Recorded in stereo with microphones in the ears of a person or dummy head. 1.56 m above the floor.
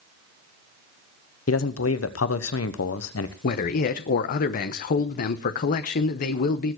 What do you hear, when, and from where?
1.5 s a man speaking: 80° left, 1.1 m
3.4 s a man speaking: 50° left (ahead or behind), 0.9 m